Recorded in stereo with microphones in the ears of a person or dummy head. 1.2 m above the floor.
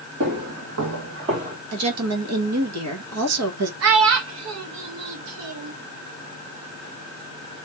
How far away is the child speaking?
About 0.6 m.